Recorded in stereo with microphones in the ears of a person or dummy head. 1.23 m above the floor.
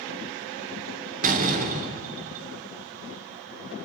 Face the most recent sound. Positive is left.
turn(degrees=-45)  # may be behind; listen again after turning